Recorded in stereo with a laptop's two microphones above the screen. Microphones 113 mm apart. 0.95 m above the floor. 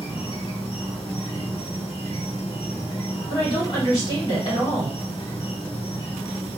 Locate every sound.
0.0 s an insect: 55° left (ahead or behind), 1.4 m
3.3 s a woman speaking: 45° left (ahead or behind), 2.5 m